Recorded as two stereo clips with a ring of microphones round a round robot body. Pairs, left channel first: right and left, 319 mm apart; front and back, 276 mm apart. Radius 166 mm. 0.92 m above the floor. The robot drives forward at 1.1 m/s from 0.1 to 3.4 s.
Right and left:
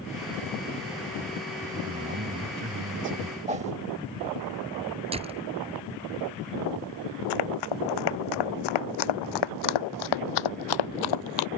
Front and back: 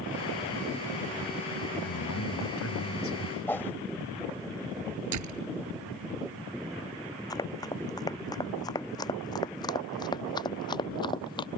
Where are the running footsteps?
80° right; by 11.5 s 75° right.